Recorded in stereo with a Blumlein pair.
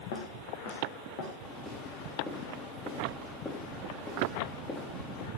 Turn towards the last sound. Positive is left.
turn(degrees=20)